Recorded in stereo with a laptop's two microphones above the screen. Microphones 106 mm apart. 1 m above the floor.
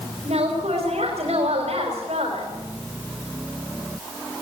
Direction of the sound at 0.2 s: 85° right.